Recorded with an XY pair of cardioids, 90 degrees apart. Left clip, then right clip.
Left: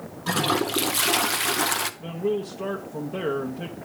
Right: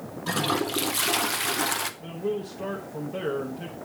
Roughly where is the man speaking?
Ahead left.